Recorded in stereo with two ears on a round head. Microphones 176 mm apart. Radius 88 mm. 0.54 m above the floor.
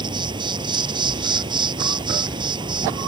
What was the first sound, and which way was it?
An insect, 25° right (ahead or behind).